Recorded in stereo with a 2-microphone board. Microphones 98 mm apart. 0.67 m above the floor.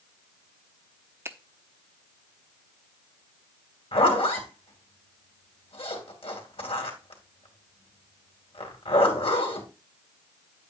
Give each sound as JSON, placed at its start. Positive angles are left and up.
{"t": 1.2, "sound": "a finger snap", "side_deg": -25, "distance_m": 0.8}
{"t": 3.9, "sound": "a zipper", "side_deg": 80, "distance_m": 2.5}